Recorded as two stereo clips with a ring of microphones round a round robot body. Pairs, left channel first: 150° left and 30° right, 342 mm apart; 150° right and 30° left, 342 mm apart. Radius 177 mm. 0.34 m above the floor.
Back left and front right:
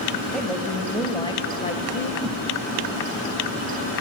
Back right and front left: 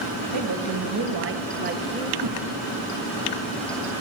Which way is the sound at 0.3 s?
60° left.